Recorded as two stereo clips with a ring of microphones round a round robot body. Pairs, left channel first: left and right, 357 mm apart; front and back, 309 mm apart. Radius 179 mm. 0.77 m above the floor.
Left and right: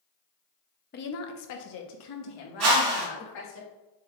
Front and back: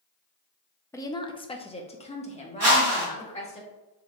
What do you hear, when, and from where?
0.9 s a woman speaking: 70° left, 0.6 m
2.6 s a whoosh: 115° right, 2 m